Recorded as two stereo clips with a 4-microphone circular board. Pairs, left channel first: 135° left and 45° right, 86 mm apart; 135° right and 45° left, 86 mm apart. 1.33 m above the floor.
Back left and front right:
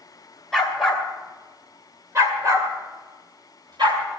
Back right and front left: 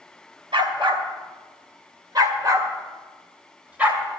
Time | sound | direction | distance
0.5 | a dog barking | 45° left | 2.5 m